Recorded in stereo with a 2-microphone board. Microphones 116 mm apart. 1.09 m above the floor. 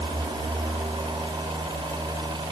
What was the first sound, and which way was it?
Only background noise.